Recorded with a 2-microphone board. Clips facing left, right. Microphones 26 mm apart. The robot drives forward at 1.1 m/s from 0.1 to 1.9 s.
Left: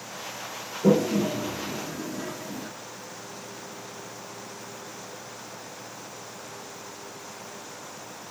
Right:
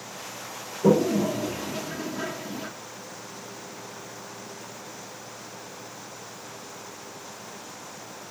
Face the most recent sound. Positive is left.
turn(degrees=-35)  # may be behind; listen again after turning